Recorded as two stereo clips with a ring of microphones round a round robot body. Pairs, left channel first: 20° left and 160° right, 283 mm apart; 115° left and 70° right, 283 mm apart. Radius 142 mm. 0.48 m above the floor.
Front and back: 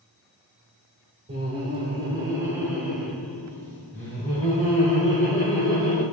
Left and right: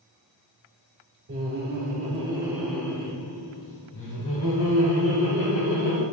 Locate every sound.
1.3 s laughter: 95° right, 1.3 m; by 6.0 s 95° left, 2 m